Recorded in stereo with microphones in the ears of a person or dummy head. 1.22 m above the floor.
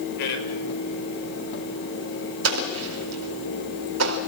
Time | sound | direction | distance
0.2 | a man speaking | 60° left (ahead or behind) | 6 m
2.4 | an explosion | 85° right | 4 m